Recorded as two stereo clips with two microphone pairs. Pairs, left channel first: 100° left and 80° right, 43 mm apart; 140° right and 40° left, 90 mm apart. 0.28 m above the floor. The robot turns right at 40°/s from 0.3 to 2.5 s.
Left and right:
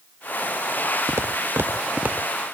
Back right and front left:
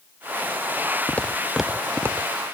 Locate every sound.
1.1 s footsteps: 70° right; by 2.3 s 15° right